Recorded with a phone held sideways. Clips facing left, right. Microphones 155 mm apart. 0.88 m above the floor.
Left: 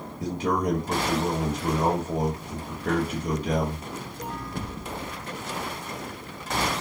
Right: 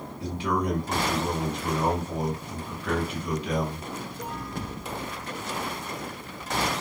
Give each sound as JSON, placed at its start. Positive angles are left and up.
{"t": 0.2, "sound": "a man speaking", "side_deg": 45, "distance_m": 1.0}